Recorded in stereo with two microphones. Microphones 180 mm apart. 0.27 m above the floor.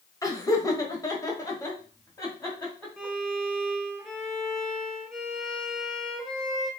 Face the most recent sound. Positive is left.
turn(degrees=0)  # may be behind; listen again after turning